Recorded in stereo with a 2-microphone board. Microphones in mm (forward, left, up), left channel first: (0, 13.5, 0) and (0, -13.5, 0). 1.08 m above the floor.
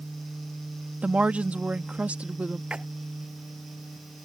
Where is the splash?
45° right (ahead or behind).